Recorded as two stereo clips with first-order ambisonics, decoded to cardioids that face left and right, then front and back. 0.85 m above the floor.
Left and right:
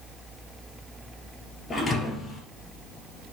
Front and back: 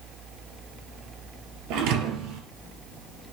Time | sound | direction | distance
1.7 | a thud | 165° left | 2.5 m